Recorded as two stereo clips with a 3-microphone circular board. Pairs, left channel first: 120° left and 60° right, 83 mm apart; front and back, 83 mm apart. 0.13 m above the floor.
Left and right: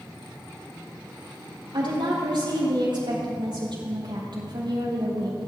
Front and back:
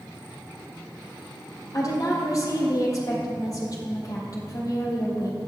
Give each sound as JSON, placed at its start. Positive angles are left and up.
{"t": 1.7, "sound": "a woman speaking", "azimuth_deg": -40, "distance_m": 3.5}